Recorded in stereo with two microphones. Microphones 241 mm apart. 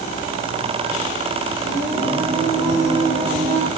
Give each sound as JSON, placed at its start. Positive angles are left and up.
{"t": 1.6, "sound": "singing", "side_deg": -5, "distance_m": 3.5}